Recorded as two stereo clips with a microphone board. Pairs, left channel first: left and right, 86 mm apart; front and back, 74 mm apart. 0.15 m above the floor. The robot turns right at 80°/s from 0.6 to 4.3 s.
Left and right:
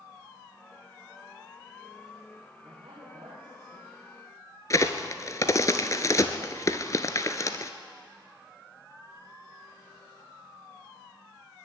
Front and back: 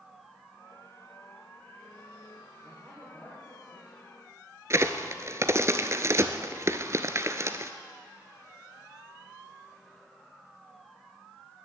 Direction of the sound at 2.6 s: 120° right.